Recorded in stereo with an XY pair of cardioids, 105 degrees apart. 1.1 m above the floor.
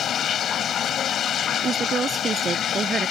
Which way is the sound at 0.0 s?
60° left.